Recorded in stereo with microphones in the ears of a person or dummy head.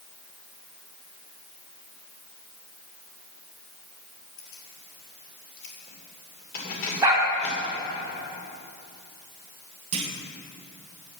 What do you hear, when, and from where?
4.4 s keys jangling: 80° left, 3 m; by 8.0 s 30° left (ahead or behind), 2.5 m
7.0 s a dog barking: 15° right (ahead or behind), 4 m
9.9 s a clunk: 35° right (ahead or behind), 1.1 m